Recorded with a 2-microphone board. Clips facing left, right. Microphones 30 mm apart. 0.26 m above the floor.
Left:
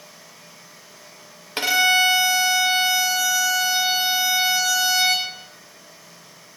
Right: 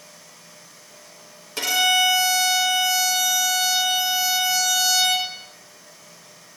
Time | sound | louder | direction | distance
1.6 | a violin | left 2 dB | 40° left (ahead or behind) | 0.9 m